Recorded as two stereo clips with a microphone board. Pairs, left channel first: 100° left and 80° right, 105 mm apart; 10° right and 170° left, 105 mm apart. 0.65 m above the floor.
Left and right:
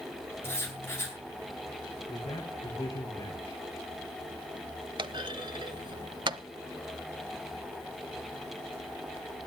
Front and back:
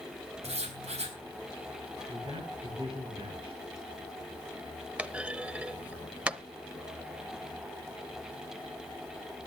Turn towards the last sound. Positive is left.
turn(degrees=-115)